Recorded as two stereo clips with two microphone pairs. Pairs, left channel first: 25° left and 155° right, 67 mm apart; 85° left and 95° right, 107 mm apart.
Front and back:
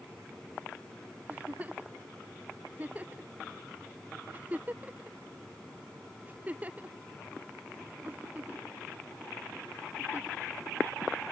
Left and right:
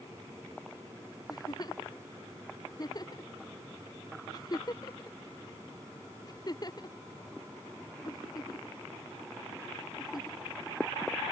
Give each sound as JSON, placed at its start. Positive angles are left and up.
{"t": 1.3, "sound": "a giggle", "azimuth_deg": 140}